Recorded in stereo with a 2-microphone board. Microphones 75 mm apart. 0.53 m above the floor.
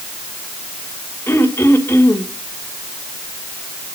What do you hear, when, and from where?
1.3 s throat clearing: 35° left (ahead or behind), 2.5 m